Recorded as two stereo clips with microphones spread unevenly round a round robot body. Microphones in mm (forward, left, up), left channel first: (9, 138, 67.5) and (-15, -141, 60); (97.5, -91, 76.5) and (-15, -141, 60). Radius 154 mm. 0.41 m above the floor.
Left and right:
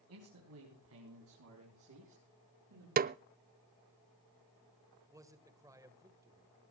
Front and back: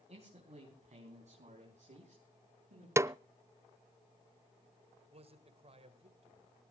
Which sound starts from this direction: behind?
A man speaking, at 5.1 s.